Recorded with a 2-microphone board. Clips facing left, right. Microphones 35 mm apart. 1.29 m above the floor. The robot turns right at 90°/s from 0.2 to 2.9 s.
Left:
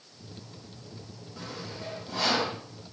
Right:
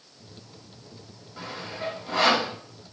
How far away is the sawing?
About 5.5 m.